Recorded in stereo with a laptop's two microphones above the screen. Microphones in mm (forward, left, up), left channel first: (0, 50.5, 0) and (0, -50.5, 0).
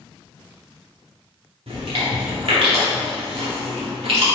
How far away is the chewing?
About 1.9 m.